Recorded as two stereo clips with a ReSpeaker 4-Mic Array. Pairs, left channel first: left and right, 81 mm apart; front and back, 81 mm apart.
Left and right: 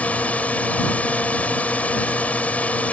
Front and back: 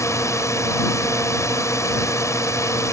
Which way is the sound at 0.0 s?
25° left.